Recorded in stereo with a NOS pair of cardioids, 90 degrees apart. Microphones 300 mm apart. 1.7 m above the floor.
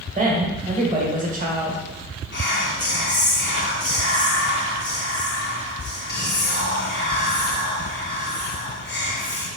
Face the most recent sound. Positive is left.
turn(degrees=40)